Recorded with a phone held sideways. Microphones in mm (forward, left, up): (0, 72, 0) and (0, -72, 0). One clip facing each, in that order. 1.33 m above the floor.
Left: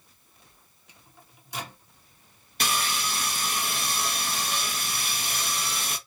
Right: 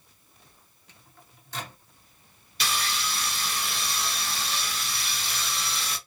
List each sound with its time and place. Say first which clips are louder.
0.9 s a microwave: even; 15° left (ahead or behind), 0.8 m
2.6 s sawing: left 2 dB; 50° left (ahead or behind), 0.8 m